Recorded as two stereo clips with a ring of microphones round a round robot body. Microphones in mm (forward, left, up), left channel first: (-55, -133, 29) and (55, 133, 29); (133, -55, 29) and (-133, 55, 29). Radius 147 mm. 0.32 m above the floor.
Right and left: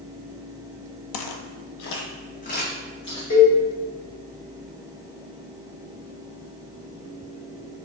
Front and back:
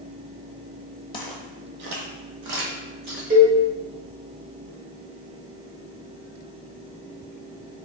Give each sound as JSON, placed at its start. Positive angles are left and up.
{"t": 1.1, "sound": "footsteps", "azimuth_deg": -95, "distance_m": 0.6}
{"t": 3.3, "sound": "a cowbell", "azimuth_deg": -145, "distance_m": 1.8}